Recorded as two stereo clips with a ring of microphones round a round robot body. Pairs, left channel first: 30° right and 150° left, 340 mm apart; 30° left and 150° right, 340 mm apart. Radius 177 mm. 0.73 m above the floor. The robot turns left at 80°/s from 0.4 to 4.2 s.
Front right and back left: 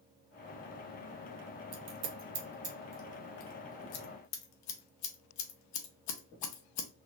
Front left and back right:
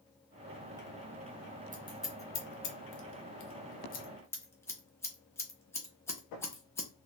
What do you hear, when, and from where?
1.7 s scissors: 150° left, 0.8 m; by 6.9 s 50° right, 0.8 m